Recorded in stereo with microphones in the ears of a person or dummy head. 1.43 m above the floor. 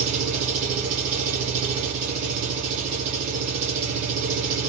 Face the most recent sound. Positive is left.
turn(degrees=-40)  # may be behind; listen again after turning